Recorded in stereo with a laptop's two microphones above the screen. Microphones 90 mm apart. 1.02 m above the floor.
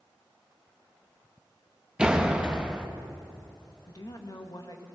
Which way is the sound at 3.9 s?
45° left (ahead or behind).